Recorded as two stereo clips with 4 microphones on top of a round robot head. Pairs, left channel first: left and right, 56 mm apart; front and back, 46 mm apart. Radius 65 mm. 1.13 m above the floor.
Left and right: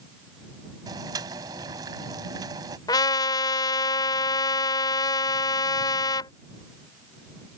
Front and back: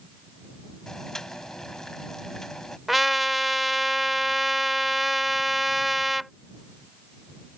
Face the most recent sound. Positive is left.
turn(degrees=90)